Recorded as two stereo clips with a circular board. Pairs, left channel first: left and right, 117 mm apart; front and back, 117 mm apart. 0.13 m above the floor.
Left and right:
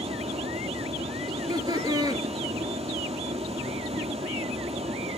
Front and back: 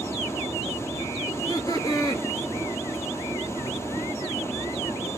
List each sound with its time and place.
0.0 s running water: 65° right, 0.9 m
1.3 s laughter: 45° right, 2 m